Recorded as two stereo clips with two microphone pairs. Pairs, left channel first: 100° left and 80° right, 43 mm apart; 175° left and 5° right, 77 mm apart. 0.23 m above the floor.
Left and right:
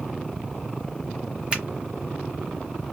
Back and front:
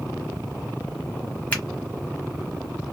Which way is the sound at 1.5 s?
125° right.